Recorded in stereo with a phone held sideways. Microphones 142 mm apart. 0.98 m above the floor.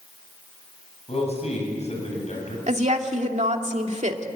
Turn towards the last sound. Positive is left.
turn(degrees=-50)  # may be behind; listen again after turning